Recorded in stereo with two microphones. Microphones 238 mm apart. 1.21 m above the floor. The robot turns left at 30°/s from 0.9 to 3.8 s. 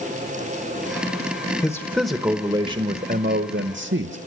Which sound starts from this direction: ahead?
A man speaking, at 1.6 s.